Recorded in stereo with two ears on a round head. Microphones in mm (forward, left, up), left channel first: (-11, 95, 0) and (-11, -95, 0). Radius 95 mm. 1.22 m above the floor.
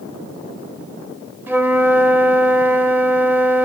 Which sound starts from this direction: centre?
A flute, at 1.5 s.